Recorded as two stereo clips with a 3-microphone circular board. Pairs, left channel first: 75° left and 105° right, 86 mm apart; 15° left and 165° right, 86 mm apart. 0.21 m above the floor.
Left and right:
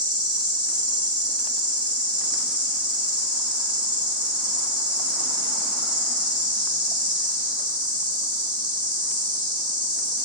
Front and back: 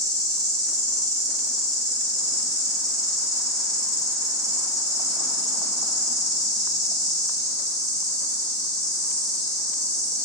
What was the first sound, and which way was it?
An insect, 125° right.